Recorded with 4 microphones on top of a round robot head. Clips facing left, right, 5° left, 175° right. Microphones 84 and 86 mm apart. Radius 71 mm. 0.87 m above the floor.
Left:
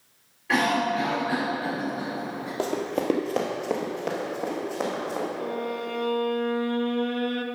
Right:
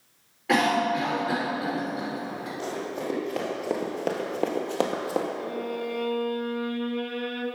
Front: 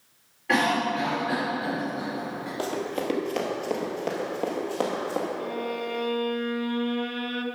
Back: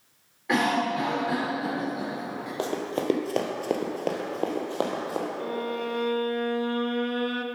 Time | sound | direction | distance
0.5 | a cough | 95° right | 3.5 m
2.6 | running footsteps | 125° left | 1.5 m
5.4 | a violin | 140° left | 0.8 m